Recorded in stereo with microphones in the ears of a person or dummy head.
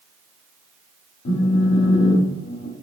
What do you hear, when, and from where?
1.2 s a phone buzzing: 60° left (ahead or behind), 0.8 m